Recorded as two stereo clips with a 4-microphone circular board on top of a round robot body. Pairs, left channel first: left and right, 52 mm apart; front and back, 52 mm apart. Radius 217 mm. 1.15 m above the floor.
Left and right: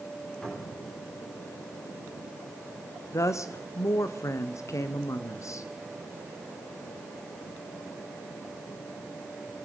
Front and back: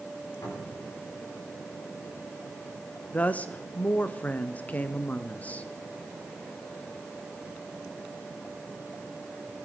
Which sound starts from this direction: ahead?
A cupboard door, at 0.4 s.